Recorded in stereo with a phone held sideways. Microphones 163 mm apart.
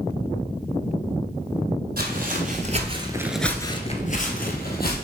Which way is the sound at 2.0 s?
60° right (ahead or behind).